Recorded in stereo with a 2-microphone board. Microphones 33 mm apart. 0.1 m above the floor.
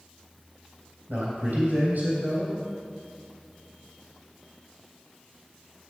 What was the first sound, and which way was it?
A man speaking, 55° right (ahead or behind).